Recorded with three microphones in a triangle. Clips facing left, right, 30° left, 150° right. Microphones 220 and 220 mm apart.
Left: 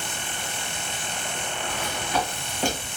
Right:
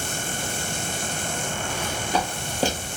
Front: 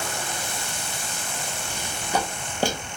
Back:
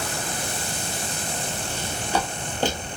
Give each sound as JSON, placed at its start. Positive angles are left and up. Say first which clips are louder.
{"t": 1.7, "sound": "footsteps", "louder": "right 2 dB, back 1 dB", "azimuth_deg": -45, "distance_m": 1.7}